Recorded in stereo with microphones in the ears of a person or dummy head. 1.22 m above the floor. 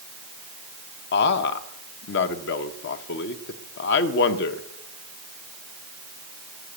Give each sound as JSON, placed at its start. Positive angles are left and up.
{"t": 1.1, "sound": "a man speaking", "side_deg": 55, "distance_m": 0.9}